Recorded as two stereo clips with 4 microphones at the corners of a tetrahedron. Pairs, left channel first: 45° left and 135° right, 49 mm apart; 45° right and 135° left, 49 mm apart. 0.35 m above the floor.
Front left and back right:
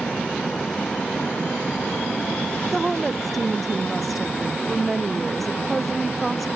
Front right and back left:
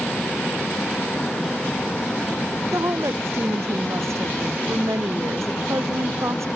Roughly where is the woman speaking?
Behind left.